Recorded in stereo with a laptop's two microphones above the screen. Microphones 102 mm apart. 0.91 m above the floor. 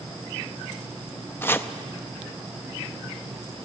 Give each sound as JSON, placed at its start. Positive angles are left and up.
{"t": 1.4, "sound": "chopping", "side_deg": 20, "distance_m": 0.5}